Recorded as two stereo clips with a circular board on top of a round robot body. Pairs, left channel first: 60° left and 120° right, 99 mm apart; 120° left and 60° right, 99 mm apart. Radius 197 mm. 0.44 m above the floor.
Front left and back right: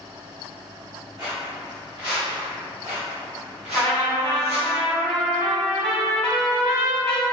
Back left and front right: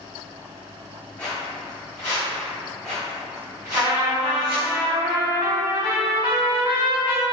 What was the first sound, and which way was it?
Footsteps, 170° right.